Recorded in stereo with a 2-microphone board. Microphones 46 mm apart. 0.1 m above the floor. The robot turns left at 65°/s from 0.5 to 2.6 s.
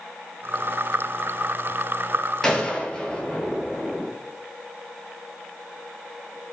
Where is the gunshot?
10° left (ahead or behind), 0.7 m; by 4.1 s 20° left (ahead or behind), 0.7 m.